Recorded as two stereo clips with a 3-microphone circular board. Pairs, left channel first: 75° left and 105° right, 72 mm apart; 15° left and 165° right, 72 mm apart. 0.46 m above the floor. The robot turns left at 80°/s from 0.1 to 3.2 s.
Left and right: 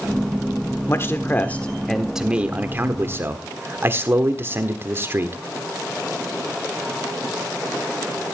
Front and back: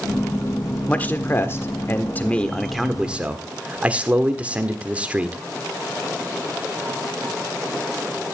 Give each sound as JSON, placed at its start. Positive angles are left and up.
{"t": 0.9, "sound": "a man speaking", "azimuth_deg": 75, "distance_m": 1.4}